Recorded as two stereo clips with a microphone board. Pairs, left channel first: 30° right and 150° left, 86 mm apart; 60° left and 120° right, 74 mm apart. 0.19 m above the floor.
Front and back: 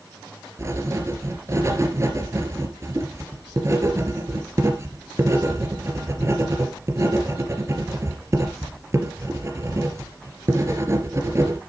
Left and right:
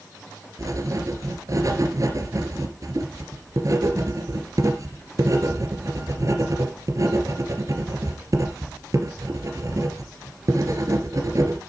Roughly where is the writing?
Behind right.